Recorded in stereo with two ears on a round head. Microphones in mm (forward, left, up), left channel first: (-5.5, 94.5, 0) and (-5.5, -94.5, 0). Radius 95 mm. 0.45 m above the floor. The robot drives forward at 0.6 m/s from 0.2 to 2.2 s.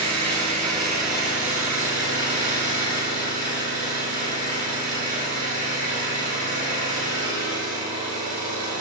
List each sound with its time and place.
0.0 s an engine running: 35° right (ahead or behind), 7 m; by 8.8 s 40° right (ahead or behind), 6 m